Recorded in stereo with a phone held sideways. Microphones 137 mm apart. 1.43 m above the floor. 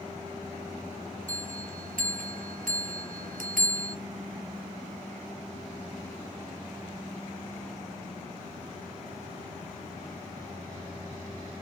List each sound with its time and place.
1.3 s a bell: 85° right, 0.6 m